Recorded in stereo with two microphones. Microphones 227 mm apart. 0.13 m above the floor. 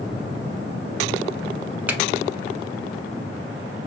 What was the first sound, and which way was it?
A finger snap, 5° right (ahead or behind).